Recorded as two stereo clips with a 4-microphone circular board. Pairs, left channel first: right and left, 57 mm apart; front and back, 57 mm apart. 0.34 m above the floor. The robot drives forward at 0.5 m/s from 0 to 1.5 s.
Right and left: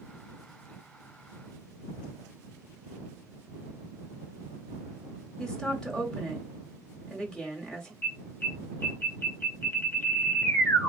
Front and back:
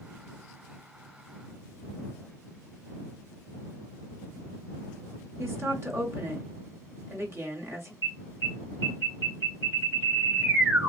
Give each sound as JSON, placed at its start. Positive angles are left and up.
{"t": 5.4, "sound": "a woman speaking", "azimuth_deg": -165, "distance_m": 1.5}
{"t": 8.0, "sound": "an alarm", "azimuth_deg": -145, "distance_m": 2.5}